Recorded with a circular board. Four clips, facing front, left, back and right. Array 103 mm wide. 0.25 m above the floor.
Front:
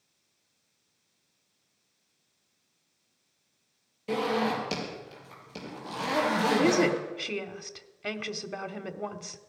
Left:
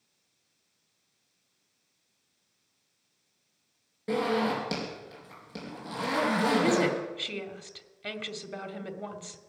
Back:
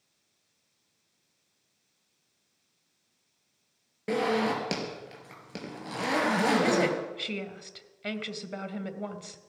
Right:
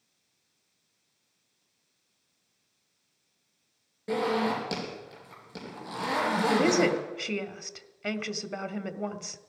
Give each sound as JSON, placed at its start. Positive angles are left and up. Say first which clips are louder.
{"t": 4.1, "sound": "a zipper", "louder": "even, back 1 dB", "azimuth_deg": 175, "distance_m": 4.5}
{"t": 6.5, "sound": "a woman speaking", "louder": "right 3 dB, front 3 dB", "azimuth_deg": -70, "distance_m": 0.9}